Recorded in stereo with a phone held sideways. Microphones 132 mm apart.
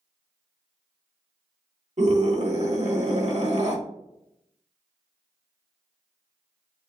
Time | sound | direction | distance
2.0 | a scream | 60° right (ahead or behind) | 1.8 m